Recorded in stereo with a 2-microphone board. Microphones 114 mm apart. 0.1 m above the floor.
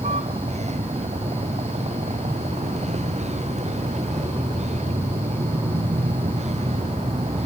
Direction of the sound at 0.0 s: 80° right.